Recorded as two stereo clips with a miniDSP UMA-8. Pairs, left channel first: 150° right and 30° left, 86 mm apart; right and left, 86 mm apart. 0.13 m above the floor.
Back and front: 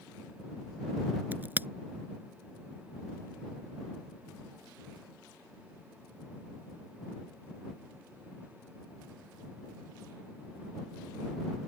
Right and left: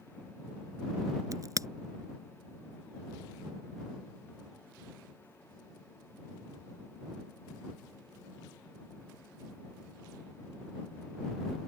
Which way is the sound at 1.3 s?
85° left.